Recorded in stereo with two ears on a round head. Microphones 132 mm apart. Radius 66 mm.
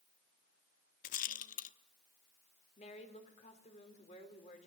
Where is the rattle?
55° left (ahead or behind), 1.0 m.